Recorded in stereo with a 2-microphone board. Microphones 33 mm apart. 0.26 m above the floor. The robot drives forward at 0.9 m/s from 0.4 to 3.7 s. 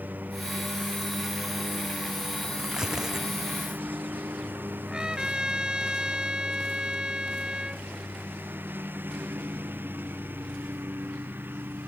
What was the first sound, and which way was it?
A lawn mower, 60° right (ahead or behind).